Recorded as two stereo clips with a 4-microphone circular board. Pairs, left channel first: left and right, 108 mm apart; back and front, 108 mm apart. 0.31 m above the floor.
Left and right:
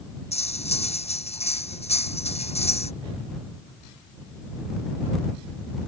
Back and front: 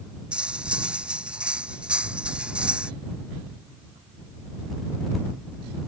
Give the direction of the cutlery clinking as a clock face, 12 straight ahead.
9 o'clock.